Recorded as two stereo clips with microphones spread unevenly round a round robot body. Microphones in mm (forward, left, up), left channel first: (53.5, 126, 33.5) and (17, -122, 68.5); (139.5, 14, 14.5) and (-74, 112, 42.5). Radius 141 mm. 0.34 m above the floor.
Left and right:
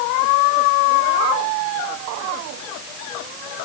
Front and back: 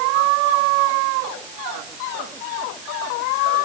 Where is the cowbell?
No cowbell in this recording.